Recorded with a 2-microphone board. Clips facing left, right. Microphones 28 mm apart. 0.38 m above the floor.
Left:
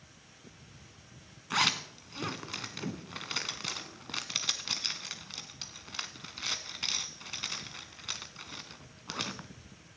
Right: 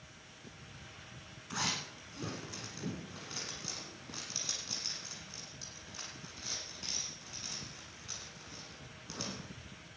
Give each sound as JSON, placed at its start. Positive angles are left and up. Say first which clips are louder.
{"t": 1.5, "sound": "a zipper", "louder": "left 8 dB", "side_deg": 85, "distance_m": 1.0}